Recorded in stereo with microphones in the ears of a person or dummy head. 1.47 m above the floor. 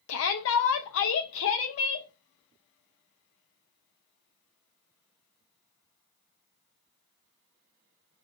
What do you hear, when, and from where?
0.1 s a shout: 70° left (ahead or behind), 0.6 m